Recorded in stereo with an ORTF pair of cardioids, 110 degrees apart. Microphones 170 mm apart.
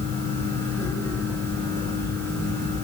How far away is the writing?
No writing in this recording.